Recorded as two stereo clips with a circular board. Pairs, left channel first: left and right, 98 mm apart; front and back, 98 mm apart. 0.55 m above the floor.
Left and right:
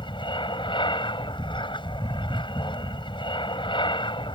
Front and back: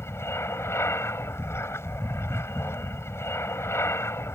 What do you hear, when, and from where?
0.0 s an aircraft: 60° left